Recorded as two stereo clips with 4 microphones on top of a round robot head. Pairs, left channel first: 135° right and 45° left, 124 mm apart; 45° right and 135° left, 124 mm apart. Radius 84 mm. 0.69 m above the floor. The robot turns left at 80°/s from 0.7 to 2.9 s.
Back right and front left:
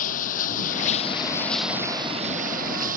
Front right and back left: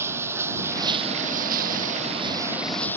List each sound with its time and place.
0.0 s running water: 155° right; by 3.0 s 30° left